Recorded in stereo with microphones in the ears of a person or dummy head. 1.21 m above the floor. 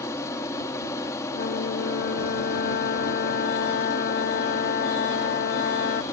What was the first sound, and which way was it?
An aircraft, 15° left (ahead or behind).